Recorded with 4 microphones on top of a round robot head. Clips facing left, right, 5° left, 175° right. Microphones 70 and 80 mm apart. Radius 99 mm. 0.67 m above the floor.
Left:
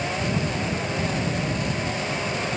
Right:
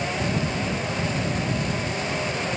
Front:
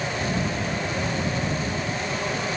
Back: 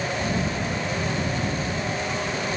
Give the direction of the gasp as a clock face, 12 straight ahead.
No gasp in this recording.